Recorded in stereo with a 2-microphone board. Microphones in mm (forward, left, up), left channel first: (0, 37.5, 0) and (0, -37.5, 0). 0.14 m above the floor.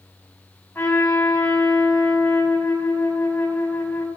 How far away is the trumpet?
About 3 m.